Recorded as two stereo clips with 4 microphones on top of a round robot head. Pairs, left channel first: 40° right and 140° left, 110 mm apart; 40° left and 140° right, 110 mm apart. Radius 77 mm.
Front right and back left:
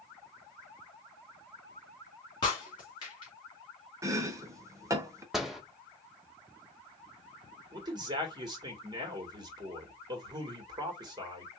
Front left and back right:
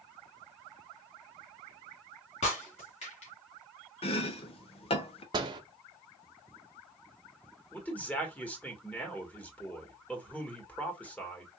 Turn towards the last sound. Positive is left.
turn(degrees=115)